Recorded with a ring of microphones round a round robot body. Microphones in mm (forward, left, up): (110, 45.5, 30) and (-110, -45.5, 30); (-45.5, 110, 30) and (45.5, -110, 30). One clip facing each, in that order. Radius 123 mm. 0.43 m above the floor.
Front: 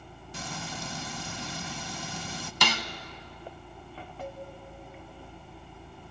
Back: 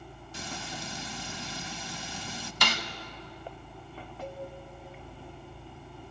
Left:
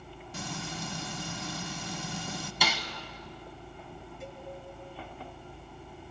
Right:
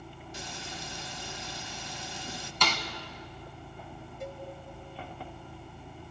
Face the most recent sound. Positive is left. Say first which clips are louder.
# even, right 6 dB
turn(degrees=-15)